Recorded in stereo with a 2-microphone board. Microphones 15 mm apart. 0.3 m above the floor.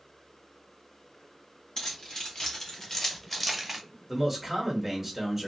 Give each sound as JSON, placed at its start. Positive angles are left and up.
{"t": 1.8, "sound": "keys jangling", "side_deg": 60, "distance_m": 1.9}
{"t": 4.1, "sound": "a man speaking", "side_deg": 0, "distance_m": 1.7}